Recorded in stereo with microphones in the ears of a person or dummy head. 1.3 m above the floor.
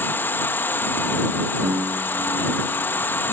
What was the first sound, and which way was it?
An insect, 15° left (ahead or behind).